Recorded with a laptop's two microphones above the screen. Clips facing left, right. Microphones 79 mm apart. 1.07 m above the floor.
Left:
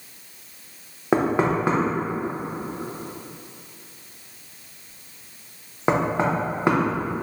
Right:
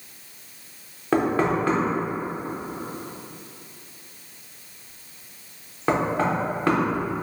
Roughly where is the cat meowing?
No cat meowing in this recording.